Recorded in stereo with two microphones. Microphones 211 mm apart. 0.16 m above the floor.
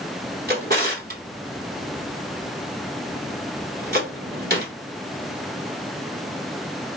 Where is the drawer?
45° right (ahead or behind), 1.1 m.